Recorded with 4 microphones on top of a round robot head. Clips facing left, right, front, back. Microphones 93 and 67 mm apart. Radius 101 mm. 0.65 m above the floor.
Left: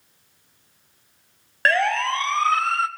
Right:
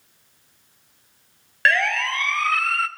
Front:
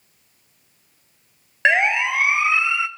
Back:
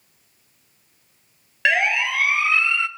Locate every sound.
1.6 s a siren: 55° left, 2 m; by 2.9 s 65° left, 1.7 m